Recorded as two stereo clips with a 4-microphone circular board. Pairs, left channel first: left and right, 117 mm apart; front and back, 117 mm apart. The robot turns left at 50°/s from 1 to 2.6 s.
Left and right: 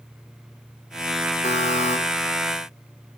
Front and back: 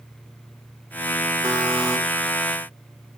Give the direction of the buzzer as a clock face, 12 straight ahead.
8 o'clock.